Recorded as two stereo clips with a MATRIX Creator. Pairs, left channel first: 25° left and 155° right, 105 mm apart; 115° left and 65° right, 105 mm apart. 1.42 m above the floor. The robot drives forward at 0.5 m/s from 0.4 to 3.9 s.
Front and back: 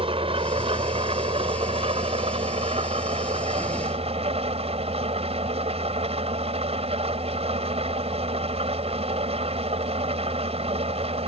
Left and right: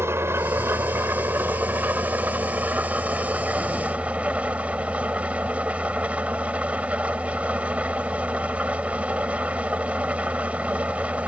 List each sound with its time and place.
0.0 s an engine running: 135° right; by 11.3 s 145° right